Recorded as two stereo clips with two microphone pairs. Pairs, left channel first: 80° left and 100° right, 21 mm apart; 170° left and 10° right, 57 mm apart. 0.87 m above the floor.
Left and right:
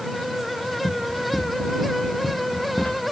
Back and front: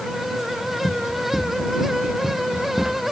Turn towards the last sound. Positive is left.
turn(degrees=75)